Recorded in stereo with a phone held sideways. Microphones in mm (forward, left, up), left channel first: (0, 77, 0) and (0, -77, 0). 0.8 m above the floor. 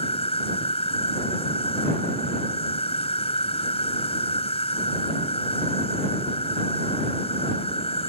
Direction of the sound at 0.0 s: 40° left (ahead or behind).